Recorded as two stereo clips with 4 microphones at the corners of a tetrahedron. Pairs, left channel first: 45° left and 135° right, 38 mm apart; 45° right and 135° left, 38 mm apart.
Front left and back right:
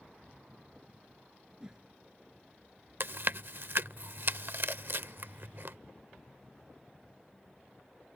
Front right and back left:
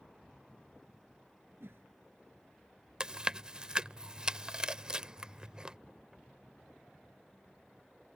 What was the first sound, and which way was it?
A whoosh, 155° left.